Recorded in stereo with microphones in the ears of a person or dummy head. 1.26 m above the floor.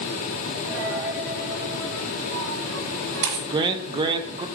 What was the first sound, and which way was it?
A dropped coin, 65° right (ahead or behind).